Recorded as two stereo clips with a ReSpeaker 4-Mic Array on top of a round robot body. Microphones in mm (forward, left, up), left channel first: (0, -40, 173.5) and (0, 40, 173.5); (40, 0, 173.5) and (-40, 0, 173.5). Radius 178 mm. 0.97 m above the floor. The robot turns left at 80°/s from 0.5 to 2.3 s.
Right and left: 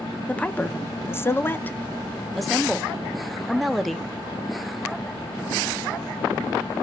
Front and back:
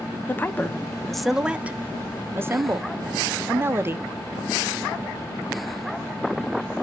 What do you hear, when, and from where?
0.3 s a woman speaking: 35° right, 0.6 m; by 4.1 s 175° right, 0.6 m